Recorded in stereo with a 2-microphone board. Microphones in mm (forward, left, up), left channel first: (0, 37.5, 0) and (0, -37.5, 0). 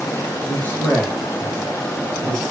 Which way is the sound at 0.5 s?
25° left (ahead or behind).